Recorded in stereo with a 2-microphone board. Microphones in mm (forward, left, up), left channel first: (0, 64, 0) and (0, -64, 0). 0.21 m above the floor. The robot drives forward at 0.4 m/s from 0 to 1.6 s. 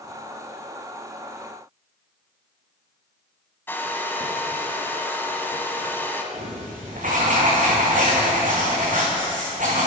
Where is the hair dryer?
15° left (ahead or behind), 1.2 m.